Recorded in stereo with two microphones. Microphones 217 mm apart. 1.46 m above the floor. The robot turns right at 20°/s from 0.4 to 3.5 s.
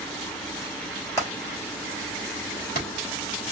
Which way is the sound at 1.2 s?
15° left (ahead or behind).